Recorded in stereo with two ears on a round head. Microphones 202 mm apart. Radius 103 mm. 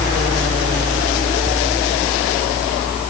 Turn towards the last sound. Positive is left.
No sound to turn to.